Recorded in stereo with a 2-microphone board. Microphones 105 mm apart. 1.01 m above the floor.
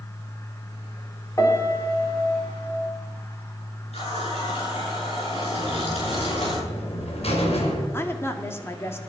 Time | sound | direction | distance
1.4 | a piano | 30° left (ahead or behind) | 3.5 m
3.9 | a running tap | 75° left (ahead or behind) | 10 m
5.6 | a buzzer | 75° left (ahead or behind) | 4 m
7.9 | a woman speaking | 25° left (ahead or behind) | 2 m